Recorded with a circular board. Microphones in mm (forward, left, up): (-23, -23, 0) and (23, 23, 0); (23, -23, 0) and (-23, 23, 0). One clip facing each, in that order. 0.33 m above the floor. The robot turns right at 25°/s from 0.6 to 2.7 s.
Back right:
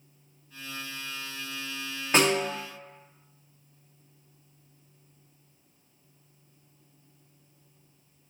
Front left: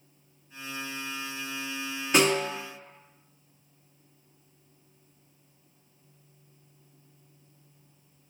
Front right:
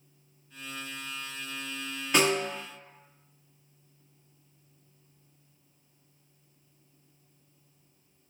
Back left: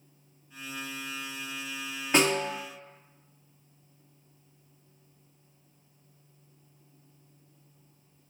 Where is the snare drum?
Straight behind, 1.8 m; by 2.5 s 170° right, 1.8 m.